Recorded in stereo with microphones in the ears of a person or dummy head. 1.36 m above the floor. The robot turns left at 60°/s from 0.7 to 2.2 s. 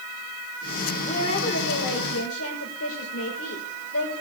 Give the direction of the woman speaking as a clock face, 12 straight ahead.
7 o'clock.